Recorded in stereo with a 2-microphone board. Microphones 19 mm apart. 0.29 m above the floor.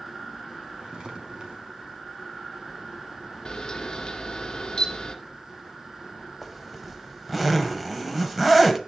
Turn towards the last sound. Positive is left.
turn(degrees=-10)  # may be behind; listen again after turning